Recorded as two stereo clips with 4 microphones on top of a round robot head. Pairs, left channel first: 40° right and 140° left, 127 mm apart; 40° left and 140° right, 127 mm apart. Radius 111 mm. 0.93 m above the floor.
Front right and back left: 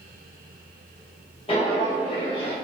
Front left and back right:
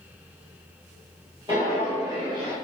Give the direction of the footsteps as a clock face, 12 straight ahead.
3 o'clock.